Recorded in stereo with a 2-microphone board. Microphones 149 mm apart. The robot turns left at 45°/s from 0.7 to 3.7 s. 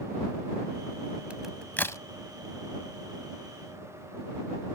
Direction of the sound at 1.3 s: 10° right (ahead or behind).